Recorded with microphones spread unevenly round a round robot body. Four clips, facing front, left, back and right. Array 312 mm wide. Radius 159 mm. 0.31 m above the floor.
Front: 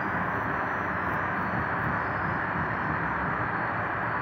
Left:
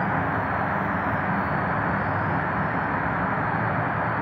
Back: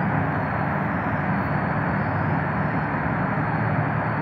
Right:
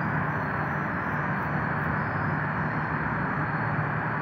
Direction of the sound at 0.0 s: 170° left.